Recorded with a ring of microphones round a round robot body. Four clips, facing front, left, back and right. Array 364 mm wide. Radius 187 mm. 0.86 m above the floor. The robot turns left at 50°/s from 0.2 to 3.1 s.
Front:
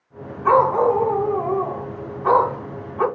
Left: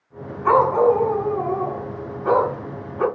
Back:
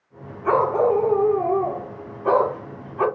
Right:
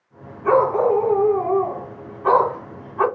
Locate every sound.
0.4 s a dog barking: 50° left, 2 m; by 3.0 s 80° right, 2 m